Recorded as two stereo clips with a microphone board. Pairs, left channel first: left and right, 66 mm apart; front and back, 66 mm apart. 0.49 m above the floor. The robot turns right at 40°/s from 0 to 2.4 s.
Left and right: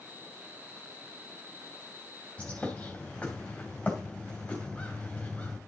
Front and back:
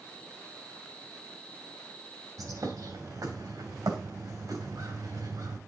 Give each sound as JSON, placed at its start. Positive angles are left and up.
{"t": 2.4, "sound": "a bird", "azimuth_deg": 160, "distance_m": 2.5}